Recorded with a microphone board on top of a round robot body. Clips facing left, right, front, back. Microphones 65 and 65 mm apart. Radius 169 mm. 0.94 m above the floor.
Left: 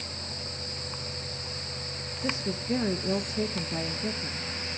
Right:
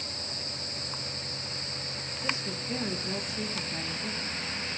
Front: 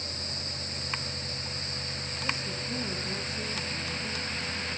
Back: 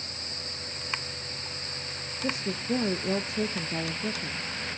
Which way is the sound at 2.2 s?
155° left.